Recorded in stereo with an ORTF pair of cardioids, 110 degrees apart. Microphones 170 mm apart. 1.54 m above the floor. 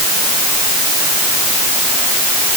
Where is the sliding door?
I don't hear a sliding door.